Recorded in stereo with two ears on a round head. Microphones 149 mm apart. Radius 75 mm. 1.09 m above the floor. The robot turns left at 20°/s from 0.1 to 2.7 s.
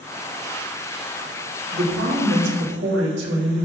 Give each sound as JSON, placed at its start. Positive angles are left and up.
{"t": 1.7, "sound": "a woman speaking", "side_deg": -75, "distance_m": 2.0}